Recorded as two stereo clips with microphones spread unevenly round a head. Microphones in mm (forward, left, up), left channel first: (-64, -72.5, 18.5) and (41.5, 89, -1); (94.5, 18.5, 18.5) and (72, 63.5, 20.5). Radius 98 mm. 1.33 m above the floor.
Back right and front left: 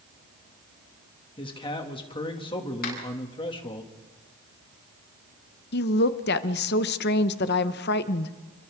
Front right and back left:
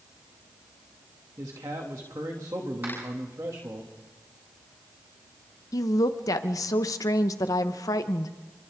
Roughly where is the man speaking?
Behind.